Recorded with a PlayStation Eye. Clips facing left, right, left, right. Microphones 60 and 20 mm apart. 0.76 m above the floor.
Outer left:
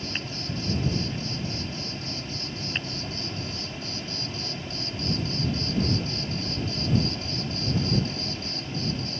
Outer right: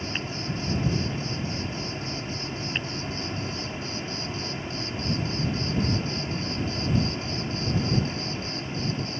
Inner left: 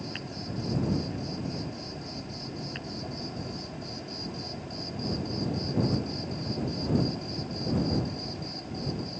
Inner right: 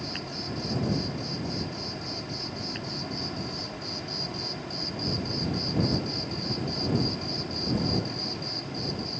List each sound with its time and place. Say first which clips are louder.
0.0 s an insect: outer right 2 dB, inner right 3 dB; 30° right (ahead or behind)